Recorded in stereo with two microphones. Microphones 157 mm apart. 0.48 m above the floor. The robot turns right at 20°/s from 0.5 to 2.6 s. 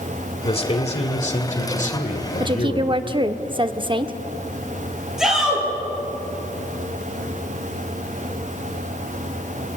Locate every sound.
0.5 s a man speaking: 50° left, 2 m; by 3.0 s 95° left, 2 m
2.4 s a woman speaking: 30° right (ahead or behind), 1.0 m
5.2 s a shout: 5° right (ahead or behind), 9.5 m